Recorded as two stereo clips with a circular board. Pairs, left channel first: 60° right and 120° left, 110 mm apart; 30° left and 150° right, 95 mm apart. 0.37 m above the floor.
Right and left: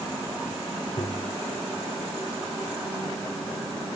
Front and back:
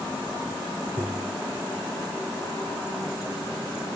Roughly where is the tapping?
Right.